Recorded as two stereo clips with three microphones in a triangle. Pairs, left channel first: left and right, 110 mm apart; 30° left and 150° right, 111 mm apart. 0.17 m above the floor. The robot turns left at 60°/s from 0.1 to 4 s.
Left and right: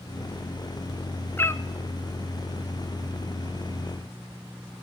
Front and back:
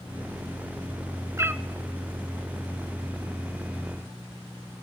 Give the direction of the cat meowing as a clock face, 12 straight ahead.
7 o'clock.